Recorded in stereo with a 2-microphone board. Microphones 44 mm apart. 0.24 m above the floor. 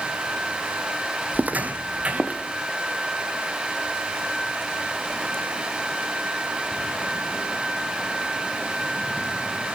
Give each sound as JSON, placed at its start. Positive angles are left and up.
{"t": 1.3, "sound": "footsteps", "side_deg": -45, "distance_m": 0.6}